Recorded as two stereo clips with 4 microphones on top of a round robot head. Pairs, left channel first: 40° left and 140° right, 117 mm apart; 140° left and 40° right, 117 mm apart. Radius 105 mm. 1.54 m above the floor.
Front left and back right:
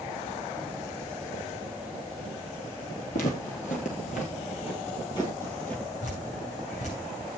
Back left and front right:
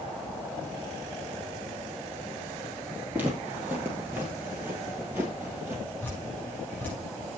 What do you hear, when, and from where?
3.1 s footsteps: 35° left, 2 m; by 5.8 s 20° right, 1.5 m
6.0 s dripping: 60° left, 7 m